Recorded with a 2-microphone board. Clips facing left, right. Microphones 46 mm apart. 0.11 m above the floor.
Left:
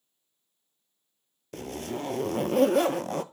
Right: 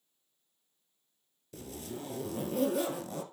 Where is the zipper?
65° left (ahead or behind), 0.5 m.